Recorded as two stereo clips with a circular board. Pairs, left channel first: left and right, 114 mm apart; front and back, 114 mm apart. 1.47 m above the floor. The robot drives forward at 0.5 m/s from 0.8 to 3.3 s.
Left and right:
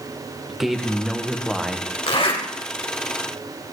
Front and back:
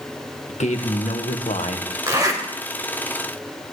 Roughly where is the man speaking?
Ahead.